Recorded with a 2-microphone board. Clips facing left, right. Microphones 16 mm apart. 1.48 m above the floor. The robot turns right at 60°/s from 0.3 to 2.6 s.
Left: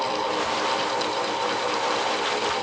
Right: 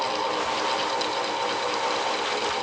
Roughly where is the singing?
No singing in this recording.